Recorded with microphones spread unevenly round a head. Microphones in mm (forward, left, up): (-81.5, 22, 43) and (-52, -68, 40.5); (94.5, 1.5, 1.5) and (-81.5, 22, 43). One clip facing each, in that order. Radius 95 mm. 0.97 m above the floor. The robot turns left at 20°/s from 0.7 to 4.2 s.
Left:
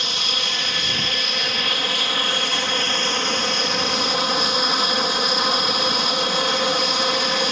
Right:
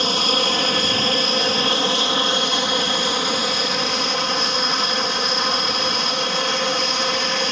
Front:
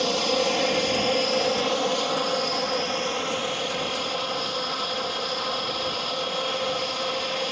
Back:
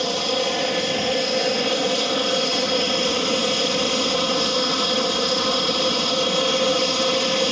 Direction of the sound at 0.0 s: 100° right.